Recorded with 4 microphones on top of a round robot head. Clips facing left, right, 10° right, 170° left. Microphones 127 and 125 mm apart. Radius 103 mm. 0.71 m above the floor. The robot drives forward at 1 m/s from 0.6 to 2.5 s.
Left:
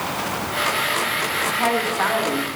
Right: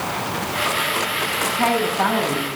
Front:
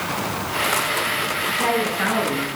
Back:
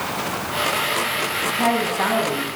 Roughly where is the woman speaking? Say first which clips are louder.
Right 2 dB, back 2 dB; behind right.